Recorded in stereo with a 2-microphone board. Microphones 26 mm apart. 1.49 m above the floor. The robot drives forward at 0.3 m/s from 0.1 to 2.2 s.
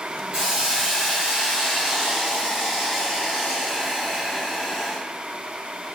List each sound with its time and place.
0.3 s a hiss: 35° right (ahead or behind), 1.4 m; by 5.0 s 25° right (ahead or behind), 1.8 m